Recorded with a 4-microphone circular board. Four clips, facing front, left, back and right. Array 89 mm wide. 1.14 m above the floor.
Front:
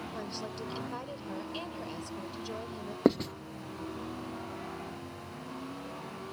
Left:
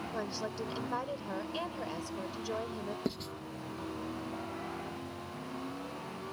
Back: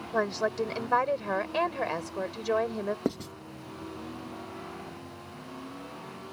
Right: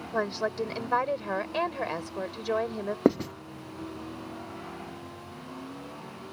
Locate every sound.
0.1 s a woman speaking: 145° right
3.0 s writing: 70° right